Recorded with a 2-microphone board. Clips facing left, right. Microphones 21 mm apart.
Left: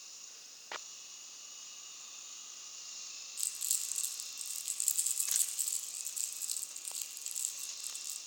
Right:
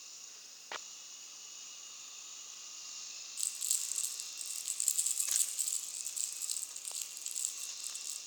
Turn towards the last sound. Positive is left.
turn(degrees=-5)  # may be behind; listen again after turning